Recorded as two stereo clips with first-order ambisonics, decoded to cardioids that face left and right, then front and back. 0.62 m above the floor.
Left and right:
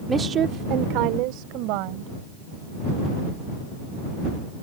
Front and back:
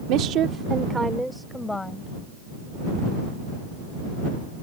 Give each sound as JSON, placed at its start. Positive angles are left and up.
{"t": 0.1, "sound": "a woman speaking", "azimuth_deg": -165}